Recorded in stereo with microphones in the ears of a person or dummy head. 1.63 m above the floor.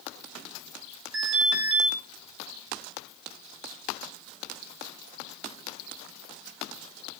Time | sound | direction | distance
1.1 | an alarm | 85° right | 8.5 m